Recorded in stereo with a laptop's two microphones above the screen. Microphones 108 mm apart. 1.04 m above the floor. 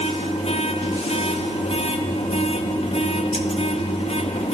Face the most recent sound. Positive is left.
turn(degrees=70)  # may be behind; listen again after turning